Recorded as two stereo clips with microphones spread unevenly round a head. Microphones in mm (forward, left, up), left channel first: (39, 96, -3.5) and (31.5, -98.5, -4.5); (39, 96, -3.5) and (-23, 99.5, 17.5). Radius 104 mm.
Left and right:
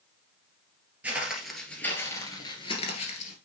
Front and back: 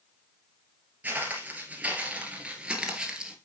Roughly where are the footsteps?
Behind.